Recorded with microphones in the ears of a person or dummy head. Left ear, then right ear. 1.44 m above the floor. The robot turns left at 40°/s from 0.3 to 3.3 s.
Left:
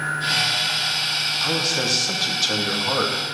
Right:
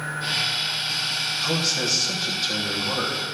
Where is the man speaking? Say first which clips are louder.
Left 2 dB; 165° left, 2.5 m; by 3.2 s 95° left, 2.5 m.